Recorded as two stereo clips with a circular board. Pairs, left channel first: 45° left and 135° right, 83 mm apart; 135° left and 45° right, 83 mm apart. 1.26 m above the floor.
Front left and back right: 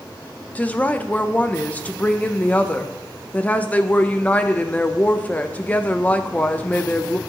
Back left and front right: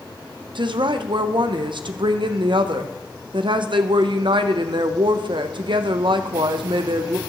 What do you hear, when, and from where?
0.6 s a woman speaking: 25° right, 0.6 m